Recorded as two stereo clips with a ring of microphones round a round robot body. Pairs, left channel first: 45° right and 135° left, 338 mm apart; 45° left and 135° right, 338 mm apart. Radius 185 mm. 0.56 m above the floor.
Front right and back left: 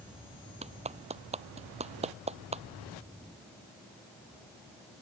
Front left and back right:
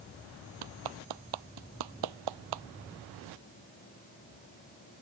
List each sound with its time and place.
0.6 s a clap: 150° right